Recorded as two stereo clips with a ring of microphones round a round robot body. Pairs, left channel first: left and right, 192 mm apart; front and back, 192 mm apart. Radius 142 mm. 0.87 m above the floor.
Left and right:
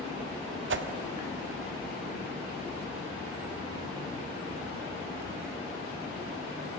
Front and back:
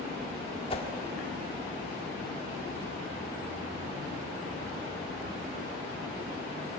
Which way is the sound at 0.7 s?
70° right.